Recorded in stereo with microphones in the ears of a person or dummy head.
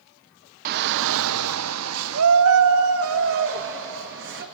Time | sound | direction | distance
0.7 | a shout | 45° right (ahead or behind) | 0.5 m